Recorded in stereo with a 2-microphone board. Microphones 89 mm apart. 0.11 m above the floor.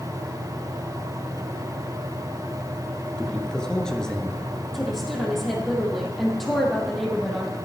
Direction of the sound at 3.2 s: 10° left (ahead or behind).